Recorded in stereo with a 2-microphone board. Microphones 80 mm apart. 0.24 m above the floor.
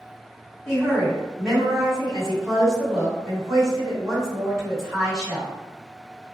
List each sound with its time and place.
0.7 s a woman speaking: 5° right (ahead or behind), 2.0 m